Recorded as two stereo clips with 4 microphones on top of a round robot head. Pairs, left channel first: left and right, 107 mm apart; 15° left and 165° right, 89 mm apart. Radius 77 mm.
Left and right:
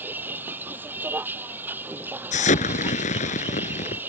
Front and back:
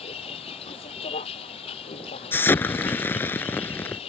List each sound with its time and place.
0.0 s a vehicle: 15° right
2.3 s an explosion: 80° left